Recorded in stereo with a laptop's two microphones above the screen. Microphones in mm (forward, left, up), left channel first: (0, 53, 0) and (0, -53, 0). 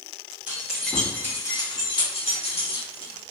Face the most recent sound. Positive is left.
turn(degrees=80)